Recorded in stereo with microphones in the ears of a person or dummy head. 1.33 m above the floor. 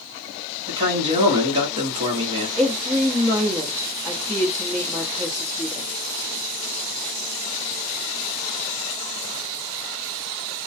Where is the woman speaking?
10° right (ahead or behind), 1.1 m.